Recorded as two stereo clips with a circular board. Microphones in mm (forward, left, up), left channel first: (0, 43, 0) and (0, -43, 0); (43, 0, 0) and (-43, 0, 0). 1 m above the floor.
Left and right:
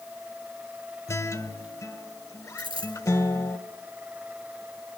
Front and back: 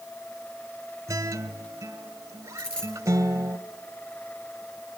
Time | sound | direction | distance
1.1 | a guitar | 135° left | 1.3 m
2.6 | a dropped coin | 85° right | 6.5 m